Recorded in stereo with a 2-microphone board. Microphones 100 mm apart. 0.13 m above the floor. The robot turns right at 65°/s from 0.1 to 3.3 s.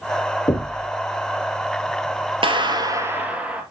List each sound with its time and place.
0.5 s knocking: 50° left (ahead or behind), 1.9 m; by 0.9 s 45° left (ahead or behind), 1.9 m
2.4 s a clap: 70° right, 2 m; by 3.6 s 15° right, 2 m